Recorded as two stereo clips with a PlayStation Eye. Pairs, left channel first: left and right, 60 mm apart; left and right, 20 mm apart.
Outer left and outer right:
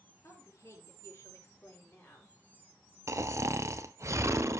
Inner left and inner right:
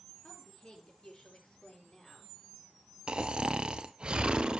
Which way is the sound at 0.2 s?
60° left (ahead or behind).